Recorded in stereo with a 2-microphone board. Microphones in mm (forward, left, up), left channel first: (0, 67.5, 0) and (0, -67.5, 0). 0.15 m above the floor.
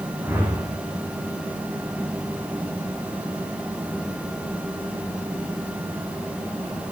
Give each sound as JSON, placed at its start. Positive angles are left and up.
{"t": 0.2, "sound": "a whoosh", "side_deg": -15, "distance_m": 3.5}